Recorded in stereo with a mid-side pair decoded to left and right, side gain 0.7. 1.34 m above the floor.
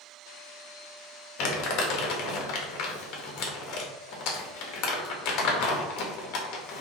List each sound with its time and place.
1.4 s crumpling: 60° left, 1.3 m